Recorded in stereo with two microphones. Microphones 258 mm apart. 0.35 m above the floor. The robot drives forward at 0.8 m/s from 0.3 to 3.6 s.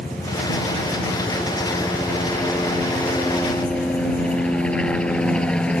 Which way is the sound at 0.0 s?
5° left (ahead or behind).